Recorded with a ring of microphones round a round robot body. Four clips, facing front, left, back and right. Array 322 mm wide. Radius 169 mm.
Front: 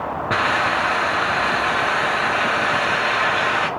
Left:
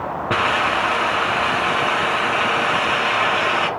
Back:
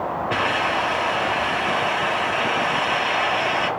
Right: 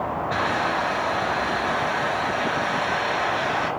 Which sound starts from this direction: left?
A hiss, at 0.3 s.